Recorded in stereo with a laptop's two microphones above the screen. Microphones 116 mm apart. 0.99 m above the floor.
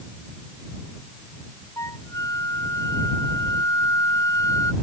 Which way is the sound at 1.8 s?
30° left (ahead or behind).